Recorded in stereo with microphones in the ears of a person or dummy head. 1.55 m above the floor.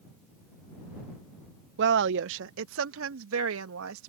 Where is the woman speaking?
65° right (ahead or behind); by 4.1 s 85° right.